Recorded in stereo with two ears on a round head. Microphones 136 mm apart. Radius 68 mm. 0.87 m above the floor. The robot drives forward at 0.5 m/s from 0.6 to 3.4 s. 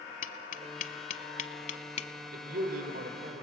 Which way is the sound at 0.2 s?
55° left (ahead or behind).